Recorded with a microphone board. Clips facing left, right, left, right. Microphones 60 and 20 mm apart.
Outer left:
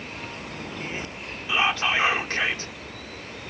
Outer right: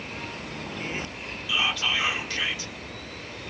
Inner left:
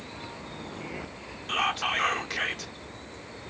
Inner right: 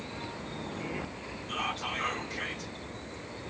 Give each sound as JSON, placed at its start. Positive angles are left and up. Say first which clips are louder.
{"t": 1.5, "sound": "whispering", "louder": "outer left 4 dB, inner left 7 dB", "side_deg": 40, "distance_m": 1.0}